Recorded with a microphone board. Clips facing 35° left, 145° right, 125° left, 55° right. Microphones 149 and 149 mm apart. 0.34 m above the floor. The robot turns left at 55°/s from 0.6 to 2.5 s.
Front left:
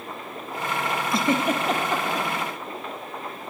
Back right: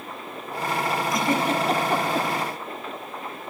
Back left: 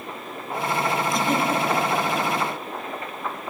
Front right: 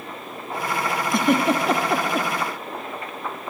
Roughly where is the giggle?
Ahead right.